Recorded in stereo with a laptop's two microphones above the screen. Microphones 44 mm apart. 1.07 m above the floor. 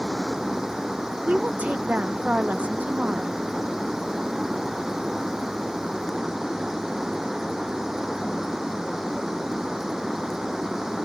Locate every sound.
0.0 s running water: 10° right (ahead or behind)
1.2 s a woman speaking: 30° right (ahead or behind)